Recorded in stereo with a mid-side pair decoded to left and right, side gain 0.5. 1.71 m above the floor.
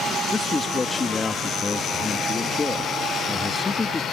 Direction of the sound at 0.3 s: 30° left.